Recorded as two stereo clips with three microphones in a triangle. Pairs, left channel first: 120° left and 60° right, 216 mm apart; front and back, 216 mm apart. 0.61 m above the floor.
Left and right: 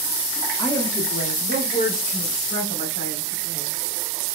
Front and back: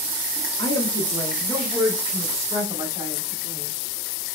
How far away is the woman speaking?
About 0.9 m.